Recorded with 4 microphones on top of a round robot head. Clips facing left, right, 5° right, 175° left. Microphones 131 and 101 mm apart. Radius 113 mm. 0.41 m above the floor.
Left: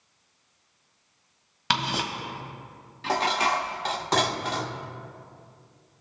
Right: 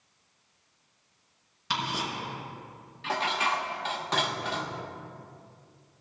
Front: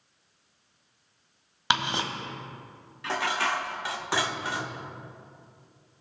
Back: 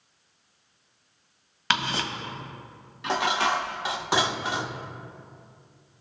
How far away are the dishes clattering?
About 0.7 m.